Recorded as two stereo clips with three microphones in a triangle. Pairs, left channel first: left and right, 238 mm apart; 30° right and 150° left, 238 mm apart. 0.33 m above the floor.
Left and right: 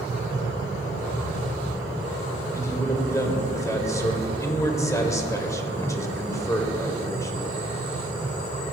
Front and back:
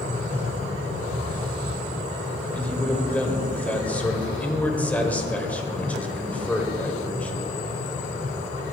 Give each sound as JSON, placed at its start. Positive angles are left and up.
{"t": 2.5, "sound": "a man speaking", "azimuth_deg": 40, "distance_m": 0.8}